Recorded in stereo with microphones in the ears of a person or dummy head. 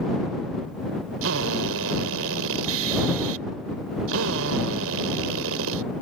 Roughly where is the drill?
Right.